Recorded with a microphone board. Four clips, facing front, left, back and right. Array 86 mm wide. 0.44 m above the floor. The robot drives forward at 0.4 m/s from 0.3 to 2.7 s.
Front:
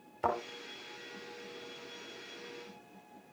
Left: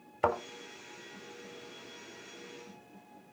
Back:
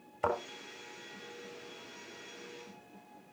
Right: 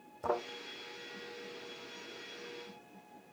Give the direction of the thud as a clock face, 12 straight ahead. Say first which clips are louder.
Left 4 dB, even; 9 o'clock.